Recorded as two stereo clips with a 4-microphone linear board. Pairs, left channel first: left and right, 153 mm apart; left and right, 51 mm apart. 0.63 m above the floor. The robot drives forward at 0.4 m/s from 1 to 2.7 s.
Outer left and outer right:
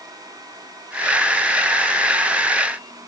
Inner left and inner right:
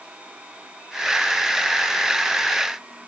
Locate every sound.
Only background noise.